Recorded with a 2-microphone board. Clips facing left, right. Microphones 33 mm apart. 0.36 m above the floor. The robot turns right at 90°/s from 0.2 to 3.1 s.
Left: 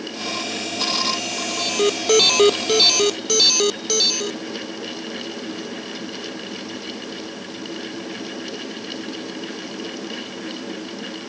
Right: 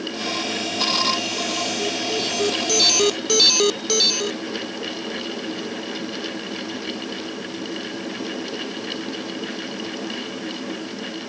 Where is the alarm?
45° left; by 4.4 s 175° right.